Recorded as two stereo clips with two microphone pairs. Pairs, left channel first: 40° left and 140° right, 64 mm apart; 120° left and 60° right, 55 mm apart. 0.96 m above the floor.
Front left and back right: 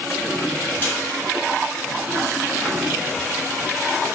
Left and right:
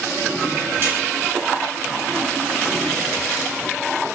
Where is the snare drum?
15° right, 3.5 m.